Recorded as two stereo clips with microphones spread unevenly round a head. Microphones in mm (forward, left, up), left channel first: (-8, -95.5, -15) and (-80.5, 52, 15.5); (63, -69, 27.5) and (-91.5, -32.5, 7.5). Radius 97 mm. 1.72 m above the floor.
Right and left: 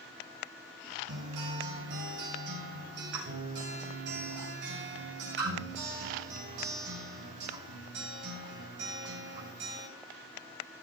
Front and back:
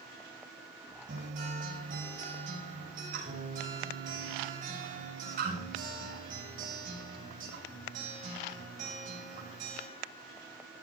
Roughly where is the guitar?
Behind left.